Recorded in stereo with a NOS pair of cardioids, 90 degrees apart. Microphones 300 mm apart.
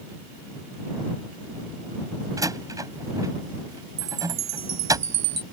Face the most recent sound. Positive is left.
turn(degrees=-65)